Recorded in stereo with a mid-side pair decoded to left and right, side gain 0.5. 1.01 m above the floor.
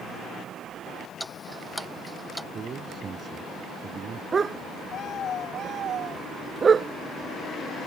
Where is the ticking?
Straight ahead.